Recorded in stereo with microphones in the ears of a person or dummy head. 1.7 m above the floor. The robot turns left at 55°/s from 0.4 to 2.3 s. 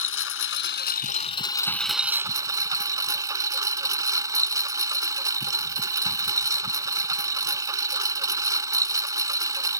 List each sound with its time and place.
0.0 s a lawn mower: 80° left; by 9.8 s 25° right